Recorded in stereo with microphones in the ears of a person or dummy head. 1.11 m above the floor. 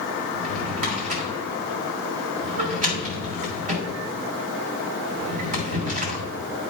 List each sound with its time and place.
0.3 s a drawer: 40° right (ahead or behind), 1.9 m